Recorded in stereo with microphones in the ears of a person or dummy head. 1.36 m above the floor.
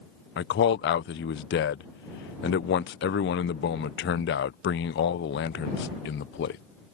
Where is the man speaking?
50° left (ahead or behind).